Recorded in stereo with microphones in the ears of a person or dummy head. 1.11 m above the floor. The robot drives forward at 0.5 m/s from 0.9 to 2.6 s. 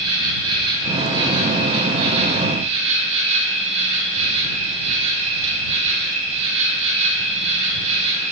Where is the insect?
35° right (ahead or behind), 4 m; by 8.3 s 40° right (ahead or behind), 3 m.